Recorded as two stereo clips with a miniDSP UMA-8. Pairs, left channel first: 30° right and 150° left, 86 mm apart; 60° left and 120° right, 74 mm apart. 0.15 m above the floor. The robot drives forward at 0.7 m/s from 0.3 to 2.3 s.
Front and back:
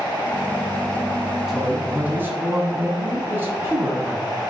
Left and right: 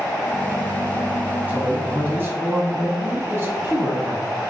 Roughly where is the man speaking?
Behind right.